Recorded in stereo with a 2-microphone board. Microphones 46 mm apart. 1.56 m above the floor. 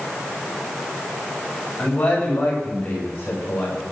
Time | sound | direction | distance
1.8 | a man speaking | 30° left (ahead or behind) | 8 m